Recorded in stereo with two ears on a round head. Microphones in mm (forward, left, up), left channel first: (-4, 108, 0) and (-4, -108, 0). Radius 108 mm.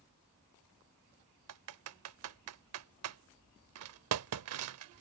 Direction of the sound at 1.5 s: 65° right (ahead or behind).